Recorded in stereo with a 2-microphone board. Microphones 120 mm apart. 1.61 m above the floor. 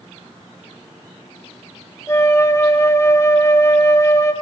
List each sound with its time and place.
2.1 s a flute: 25° left (ahead or behind), 1.0 m